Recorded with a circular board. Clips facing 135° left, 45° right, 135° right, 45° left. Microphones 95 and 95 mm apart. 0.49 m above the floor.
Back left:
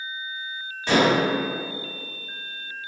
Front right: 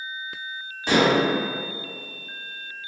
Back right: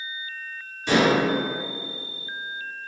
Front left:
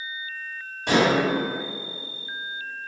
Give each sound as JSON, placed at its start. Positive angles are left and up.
{"t": 0.9, "sound": "dishes clattering", "azimuth_deg": 30, "distance_m": 1.5}